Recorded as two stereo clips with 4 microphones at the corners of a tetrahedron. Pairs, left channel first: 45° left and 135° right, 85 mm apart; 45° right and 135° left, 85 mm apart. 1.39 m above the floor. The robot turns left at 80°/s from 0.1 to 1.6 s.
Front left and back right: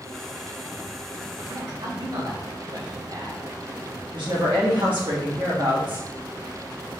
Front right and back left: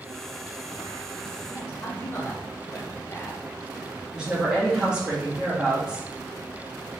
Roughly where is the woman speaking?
Behind right.